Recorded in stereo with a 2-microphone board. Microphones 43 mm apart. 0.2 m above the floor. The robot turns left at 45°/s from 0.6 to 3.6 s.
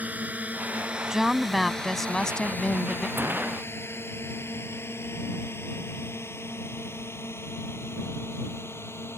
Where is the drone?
40° right (ahead or behind); by 9.2 s 75° left (ahead or behind).